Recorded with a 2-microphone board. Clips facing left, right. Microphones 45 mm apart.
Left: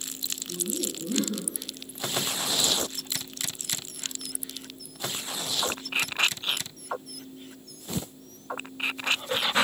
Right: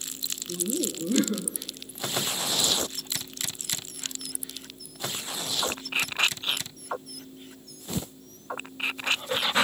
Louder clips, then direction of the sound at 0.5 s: Right 4 dB; 55° right (ahead or behind).